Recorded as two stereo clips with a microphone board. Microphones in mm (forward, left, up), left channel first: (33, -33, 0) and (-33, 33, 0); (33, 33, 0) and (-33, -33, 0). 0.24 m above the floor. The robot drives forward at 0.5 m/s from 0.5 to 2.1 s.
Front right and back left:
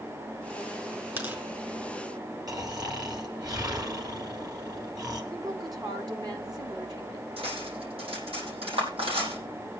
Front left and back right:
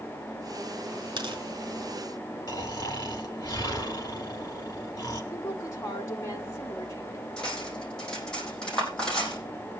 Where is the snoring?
90° left, 3.5 m.